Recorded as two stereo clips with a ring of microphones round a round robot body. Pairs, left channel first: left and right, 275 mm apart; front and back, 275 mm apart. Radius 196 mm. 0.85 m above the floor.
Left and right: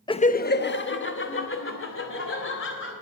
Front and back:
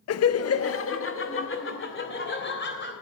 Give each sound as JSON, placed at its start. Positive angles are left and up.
{"t": 0.1, "sound": "laughter", "azimuth_deg": 15, "distance_m": 0.7}